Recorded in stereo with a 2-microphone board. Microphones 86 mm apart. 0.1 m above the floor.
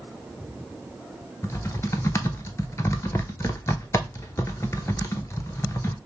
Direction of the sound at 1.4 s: 35° left (ahead or behind).